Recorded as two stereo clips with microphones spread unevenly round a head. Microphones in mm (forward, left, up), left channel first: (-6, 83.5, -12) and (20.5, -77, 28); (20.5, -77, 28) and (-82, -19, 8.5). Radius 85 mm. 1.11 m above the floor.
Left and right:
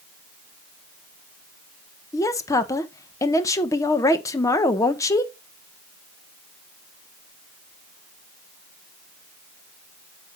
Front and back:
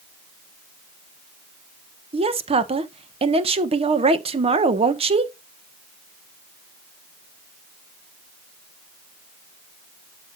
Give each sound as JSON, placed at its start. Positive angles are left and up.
{"t": 2.1, "sound": "a woman speaking", "azimuth_deg": 160, "distance_m": 1.1}